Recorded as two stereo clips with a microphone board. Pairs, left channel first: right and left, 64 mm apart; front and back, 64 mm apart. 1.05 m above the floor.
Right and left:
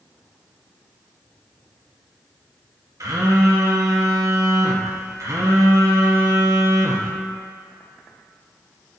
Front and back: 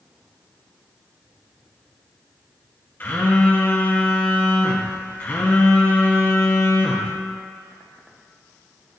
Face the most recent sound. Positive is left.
turn(degrees=60)